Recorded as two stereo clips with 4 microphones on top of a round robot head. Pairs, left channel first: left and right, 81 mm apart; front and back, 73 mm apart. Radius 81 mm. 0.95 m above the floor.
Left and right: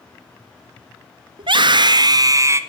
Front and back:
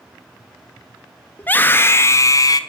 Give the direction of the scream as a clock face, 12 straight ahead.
2 o'clock.